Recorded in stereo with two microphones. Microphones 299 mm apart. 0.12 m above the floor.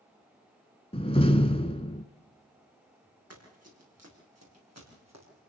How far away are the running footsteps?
About 8.5 m.